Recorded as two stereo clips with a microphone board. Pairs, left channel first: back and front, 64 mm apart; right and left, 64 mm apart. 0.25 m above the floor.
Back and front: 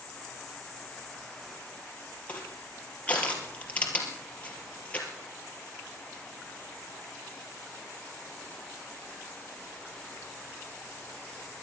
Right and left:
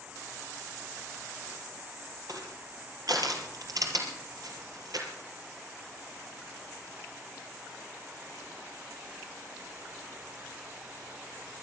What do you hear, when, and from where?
2.3 s crushing: 110° left, 2.5 m